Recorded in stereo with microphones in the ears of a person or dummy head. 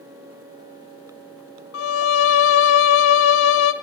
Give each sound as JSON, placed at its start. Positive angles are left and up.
{"t": 1.7, "sound": "a violin", "side_deg": 80, "distance_m": 0.7}